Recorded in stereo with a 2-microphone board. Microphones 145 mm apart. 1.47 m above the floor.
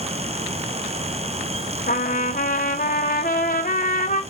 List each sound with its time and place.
1.9 s a trumpet: 70° left (ahead or behind), 0.8 m